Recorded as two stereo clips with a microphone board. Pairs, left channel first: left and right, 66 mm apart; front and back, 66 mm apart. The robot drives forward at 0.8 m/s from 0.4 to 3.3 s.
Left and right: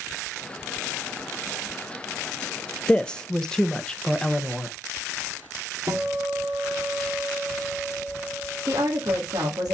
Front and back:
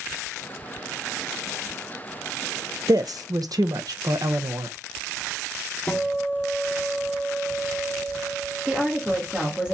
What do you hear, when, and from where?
2.9 s a woman speaking: 160° left, 0.5 m; by 4.7 s 165° left, 0.8 m
5.9 s a guitar: 65° right, 1.4 m
8.7 s a woman speaking: 110° right, 1.8 m